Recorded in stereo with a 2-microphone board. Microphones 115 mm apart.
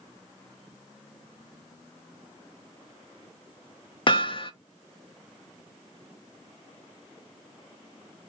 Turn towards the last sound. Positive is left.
turn(degrees=40)  # may be behind; listen again after turning